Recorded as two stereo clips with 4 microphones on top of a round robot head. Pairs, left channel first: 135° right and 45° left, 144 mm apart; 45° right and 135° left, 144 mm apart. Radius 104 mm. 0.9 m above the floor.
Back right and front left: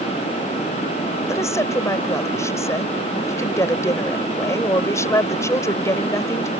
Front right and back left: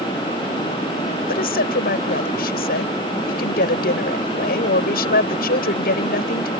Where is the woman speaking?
65° right.